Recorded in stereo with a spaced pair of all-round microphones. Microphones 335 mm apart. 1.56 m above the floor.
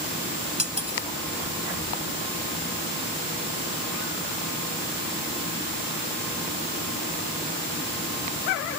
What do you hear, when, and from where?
0.6 s cutlery clinking: 50° left (ahead or behind)